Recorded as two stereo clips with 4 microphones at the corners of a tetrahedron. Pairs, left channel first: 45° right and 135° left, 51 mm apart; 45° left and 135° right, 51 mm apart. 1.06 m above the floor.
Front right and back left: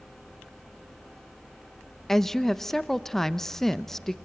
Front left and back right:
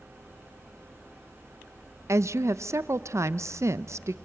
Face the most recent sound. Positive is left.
turn(degrees=-130)